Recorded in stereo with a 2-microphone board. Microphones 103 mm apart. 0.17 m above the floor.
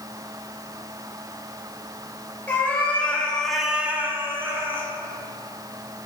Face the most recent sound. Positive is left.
turn(degrees=-20)  # may be behind; listen again after turning